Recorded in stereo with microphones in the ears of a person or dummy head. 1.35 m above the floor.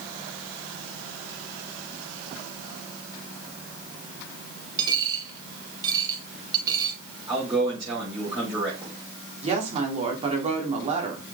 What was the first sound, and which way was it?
A dropped coin, 25° right (ahead or behind).